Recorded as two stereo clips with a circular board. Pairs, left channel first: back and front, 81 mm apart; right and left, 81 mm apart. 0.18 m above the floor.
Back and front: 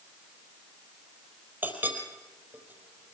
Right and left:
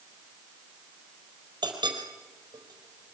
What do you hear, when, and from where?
1.6 s a clink: 65° left, 4 m